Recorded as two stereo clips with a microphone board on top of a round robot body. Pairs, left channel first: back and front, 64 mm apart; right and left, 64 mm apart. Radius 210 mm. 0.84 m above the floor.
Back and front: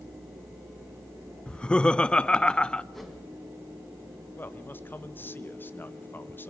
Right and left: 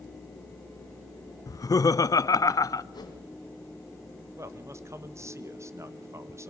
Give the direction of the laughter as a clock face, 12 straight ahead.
4 o'clock.